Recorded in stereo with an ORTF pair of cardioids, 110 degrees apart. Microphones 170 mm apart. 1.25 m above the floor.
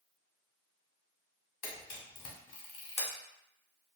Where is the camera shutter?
55° left, 1.6 m.